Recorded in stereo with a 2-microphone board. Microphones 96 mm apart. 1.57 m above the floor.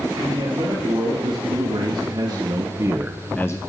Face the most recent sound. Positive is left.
turn(degrees=40)  # may be behind; listen again after turning